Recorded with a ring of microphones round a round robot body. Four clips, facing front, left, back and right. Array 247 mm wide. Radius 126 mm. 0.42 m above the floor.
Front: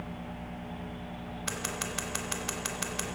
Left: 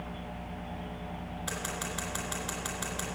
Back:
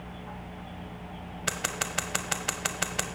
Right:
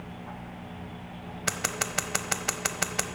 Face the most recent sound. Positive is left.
turn(degrees=-130)